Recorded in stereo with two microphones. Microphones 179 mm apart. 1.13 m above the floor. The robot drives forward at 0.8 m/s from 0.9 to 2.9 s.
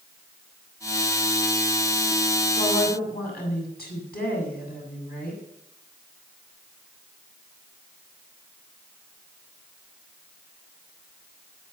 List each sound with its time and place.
2.5 s a woman speaking: 60° left (ahead or behind), 7 m